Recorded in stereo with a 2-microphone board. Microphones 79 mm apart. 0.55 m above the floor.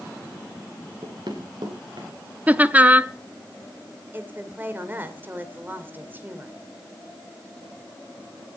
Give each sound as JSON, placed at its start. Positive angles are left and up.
{"t": 1.0, "sound": "running footsteps", "side_deg": -70, "distance_m": 3.5}
{"t": 2.5, "sound": "laughter", "side_deg": -20, "distance_m": 0.6}
{"t": 4.1, "sound": "a woman speaking", "side_deg": -25, "distance_m": 2.5}